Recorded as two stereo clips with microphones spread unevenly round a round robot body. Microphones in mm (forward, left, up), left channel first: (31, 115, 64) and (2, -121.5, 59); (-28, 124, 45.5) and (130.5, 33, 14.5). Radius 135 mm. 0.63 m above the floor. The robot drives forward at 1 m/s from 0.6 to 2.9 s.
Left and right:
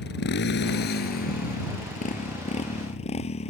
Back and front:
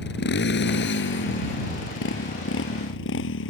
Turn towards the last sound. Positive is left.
turn(degrees=150)